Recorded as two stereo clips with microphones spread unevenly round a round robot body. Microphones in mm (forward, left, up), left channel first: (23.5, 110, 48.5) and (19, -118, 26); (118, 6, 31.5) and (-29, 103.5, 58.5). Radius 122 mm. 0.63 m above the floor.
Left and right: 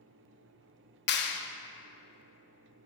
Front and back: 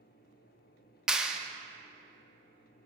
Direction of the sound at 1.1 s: 55° left.